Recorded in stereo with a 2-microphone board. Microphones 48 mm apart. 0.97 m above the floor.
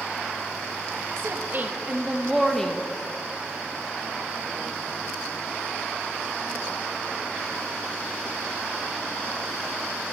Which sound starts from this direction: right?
A woman speaking, at 1.2 s.